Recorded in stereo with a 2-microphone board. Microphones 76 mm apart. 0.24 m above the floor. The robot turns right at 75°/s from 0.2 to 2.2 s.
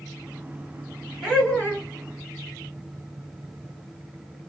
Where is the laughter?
Straight ahead, 2 m; by 1.9 s 50° left, 2 m.